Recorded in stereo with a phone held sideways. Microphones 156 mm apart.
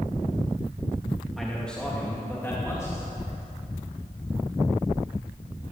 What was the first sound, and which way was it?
A man speaking, centre (ahead or behind).